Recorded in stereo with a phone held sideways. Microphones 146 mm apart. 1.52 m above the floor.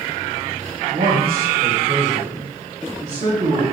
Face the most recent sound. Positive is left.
turn(degrees=-75)  # may be behind; listen again after turning